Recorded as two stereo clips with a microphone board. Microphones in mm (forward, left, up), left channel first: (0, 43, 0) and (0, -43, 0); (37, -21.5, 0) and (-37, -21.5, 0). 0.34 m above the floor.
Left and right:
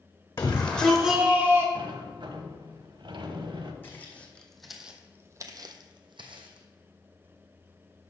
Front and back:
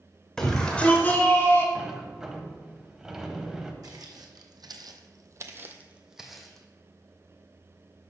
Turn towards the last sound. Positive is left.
turn(degrees=-85)